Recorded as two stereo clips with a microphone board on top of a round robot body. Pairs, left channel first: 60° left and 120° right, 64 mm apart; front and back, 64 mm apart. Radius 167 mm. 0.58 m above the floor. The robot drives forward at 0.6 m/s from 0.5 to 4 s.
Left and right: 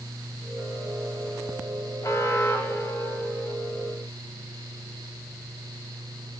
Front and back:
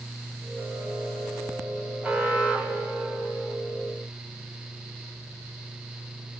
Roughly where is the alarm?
Left.